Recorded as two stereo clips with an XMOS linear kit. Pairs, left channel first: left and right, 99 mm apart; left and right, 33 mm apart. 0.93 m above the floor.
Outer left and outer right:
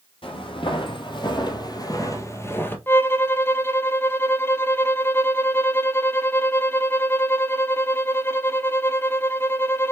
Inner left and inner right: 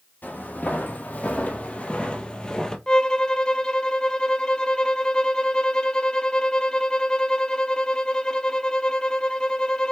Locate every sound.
0.2 s footsteps: 65° left (ahead or behind), 2 m; by 2.8 s 20° left (ahead or behind), 1.5 m
2.9 s a violin: 25° left (ahead or behind), 0.6 m